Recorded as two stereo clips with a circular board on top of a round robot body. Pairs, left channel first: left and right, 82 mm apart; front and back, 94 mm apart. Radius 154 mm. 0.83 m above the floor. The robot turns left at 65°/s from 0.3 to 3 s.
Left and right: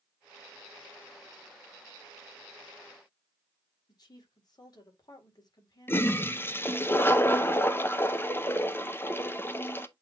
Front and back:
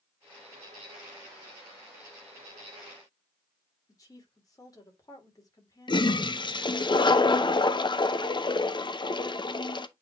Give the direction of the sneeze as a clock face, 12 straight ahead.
I don't hear a sneeze.